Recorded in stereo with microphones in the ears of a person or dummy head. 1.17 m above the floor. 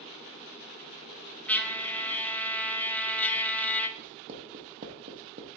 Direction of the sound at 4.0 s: 40° right (ahead or behind).